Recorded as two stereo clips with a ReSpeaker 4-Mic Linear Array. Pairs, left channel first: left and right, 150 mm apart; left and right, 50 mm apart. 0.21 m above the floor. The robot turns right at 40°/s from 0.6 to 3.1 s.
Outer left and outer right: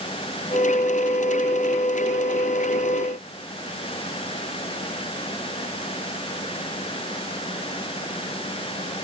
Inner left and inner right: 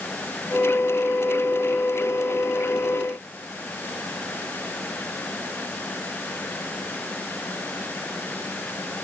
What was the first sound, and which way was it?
Only background noise.